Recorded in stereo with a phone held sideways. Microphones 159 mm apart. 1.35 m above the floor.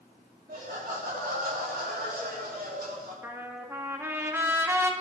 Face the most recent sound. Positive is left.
turn(degrees=-15)  # may be behind; listen again after turning